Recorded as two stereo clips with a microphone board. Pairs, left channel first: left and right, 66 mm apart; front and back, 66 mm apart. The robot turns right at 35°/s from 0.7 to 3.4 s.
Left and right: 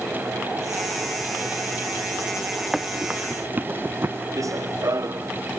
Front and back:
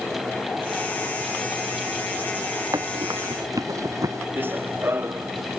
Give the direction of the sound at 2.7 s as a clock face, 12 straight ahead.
6 o'clock.